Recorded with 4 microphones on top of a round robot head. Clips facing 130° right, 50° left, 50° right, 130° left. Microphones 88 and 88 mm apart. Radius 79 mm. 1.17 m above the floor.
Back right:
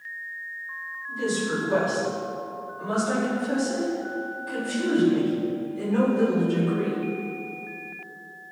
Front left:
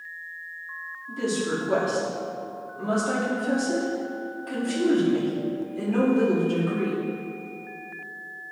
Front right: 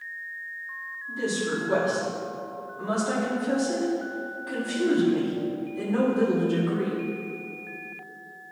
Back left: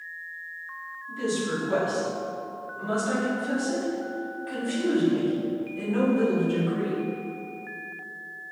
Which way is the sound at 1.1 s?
20° left.